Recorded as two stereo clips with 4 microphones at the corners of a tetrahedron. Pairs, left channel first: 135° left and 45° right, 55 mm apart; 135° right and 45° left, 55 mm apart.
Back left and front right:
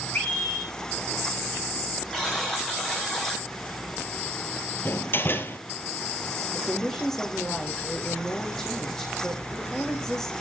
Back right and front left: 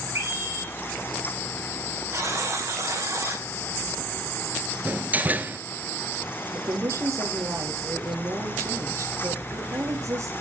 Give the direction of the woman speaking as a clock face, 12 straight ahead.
10 o'clock.